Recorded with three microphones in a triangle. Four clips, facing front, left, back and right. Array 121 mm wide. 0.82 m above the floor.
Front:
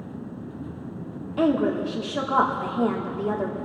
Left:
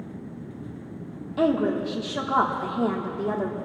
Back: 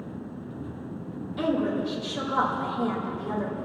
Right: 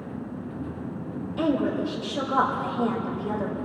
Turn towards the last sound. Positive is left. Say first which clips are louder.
# left 2 dB, front 4 dB
turn(degrees=45)